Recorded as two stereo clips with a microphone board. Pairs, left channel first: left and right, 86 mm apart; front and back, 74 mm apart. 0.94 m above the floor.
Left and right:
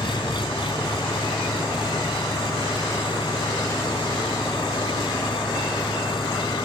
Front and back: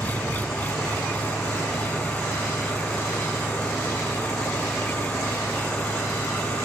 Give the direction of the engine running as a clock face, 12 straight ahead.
10 o'clock.